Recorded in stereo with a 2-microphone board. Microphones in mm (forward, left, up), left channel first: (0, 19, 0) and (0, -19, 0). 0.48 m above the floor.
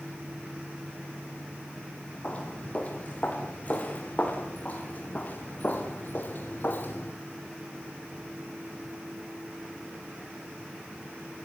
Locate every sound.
2.2 s footsteps: 30° left (ahead or behind), 6 m; by 7.1 s 50° left (ahead or behind), 3.5 m